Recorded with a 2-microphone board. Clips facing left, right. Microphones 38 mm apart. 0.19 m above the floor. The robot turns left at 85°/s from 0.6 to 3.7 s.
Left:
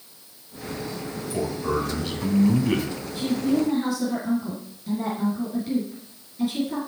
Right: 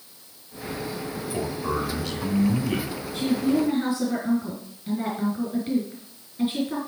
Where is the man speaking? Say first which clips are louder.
Left 2 dB; 135° right, 1.6 m; by 2.9 s 95° left, 1.6 m.